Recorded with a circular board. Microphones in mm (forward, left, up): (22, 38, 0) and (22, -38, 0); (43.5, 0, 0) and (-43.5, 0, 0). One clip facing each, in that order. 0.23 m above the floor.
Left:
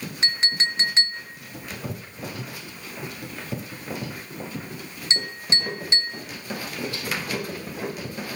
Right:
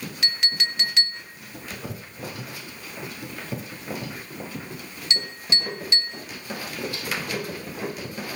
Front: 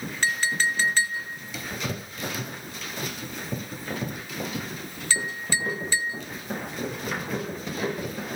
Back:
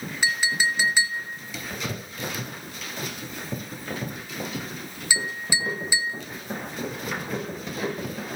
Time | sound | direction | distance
0.2 | a clink | 110° left | 1.0 m